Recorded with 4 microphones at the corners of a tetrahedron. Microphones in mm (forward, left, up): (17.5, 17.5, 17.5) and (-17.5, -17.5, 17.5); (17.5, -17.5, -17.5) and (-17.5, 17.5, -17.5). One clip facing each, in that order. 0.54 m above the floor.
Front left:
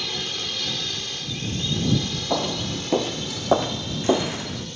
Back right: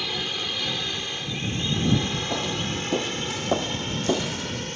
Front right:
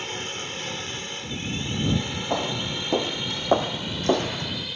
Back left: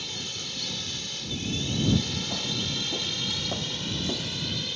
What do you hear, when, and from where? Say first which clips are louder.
0.0 s a drone: back right 1 dB, front right 5 dB; 60° right; by 4.8 s 125° right
2.3 s footsteps: front left 2 dB, front right 5 dB; 5° right; by 4.7 s 20° right